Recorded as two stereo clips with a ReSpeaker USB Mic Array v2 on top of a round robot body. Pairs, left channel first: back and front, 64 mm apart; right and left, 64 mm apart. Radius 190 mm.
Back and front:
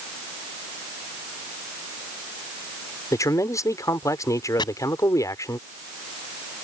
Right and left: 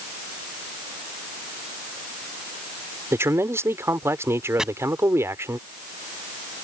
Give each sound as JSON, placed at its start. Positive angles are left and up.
{"t": 3.1, "sound": "a man speaking", "azimuth_deg": 140}
{"t": 4.6, "sound": "chopping", "azimuth_deg": 170}